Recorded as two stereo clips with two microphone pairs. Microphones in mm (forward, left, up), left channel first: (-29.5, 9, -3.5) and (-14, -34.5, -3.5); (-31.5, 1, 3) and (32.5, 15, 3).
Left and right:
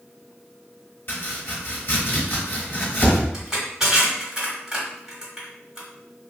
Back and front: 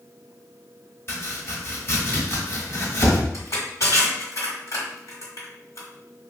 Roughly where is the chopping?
Behind left.